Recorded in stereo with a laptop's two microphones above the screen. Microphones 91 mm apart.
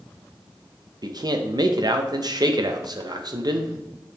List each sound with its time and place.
1.0 s a man speaking: 50° right (ahead or behind), 0.5 m